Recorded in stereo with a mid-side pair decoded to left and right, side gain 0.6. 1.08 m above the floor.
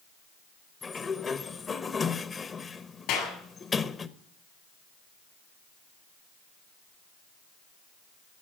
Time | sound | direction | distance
0.8 | a sliding door | 30° left | 1.0 m
3.1 | a clap | 65° left | 7 m